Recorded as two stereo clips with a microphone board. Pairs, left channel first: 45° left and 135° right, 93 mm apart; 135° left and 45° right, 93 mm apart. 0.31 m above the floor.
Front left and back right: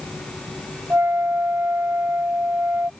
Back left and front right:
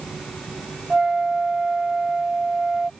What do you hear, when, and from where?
0.9 s a flute: 120° right